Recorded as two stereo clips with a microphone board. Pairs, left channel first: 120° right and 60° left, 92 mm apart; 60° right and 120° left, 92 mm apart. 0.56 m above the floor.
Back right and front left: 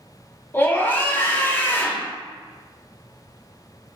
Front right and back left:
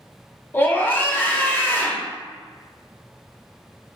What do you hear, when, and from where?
0.5 s a scream: 90° right, 0.9 m